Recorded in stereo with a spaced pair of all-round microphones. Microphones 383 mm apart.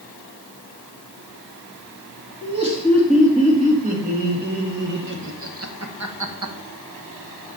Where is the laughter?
15° right (ahead or behind), 3 m; by 6.5 s 60° right (ahead or behind), 0.9 m.